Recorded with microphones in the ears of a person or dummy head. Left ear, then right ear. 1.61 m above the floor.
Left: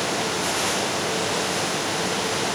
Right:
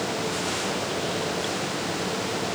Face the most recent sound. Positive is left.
No sound to turn to.